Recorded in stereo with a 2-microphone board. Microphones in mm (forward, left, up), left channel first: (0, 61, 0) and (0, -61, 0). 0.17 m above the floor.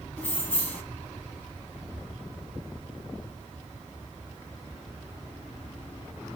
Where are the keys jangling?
15° left (ahead or behind), 0.7 m.